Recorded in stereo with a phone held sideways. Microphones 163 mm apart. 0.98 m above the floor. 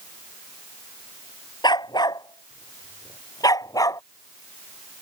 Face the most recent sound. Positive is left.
turn(degrees=20)  # may be behind; listen again after turning